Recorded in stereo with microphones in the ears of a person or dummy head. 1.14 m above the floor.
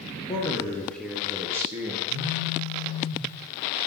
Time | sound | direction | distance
0.3 | a man speaking | 20° left (ahead or behind) | 0.7 m
2.1 | a phone buzzing | 25° left (ahead or behind) | 2.5 m